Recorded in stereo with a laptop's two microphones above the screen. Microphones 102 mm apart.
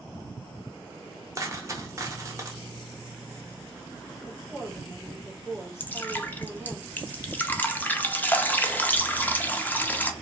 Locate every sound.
1.4 s a dropped coin: 30° right (ahead or behind), 0.7 m
4.2 s a woman speaking: 25° left (ahead or behind), 1.1 m
5.8 s dripping: 15° left (ahead or behind), 0.5 m